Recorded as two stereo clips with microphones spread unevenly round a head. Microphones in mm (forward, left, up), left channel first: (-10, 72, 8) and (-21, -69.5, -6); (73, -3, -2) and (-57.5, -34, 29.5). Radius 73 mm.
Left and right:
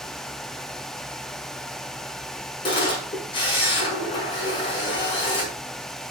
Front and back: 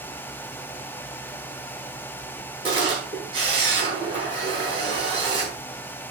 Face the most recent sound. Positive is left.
turn(degrees=140)